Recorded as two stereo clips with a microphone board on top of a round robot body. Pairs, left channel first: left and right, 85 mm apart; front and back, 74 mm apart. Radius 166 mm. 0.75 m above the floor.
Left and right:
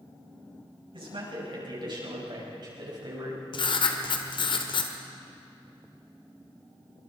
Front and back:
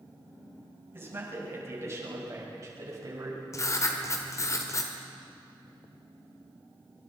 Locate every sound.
0.9 s a man speaking: 120° right, 7 m; by 3.4 s 135° right, 5.5 m
3.5 s writing: 55° left, 1.4 m